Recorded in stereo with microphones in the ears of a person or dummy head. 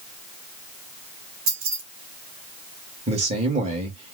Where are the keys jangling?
50° right (ahead or behind), 1.8 m.